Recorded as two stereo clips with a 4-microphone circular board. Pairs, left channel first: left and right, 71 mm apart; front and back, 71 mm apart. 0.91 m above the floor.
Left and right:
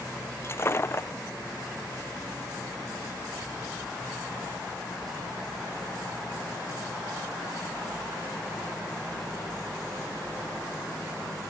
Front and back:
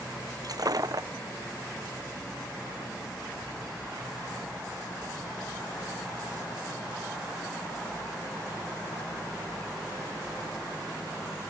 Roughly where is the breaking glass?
Behind left.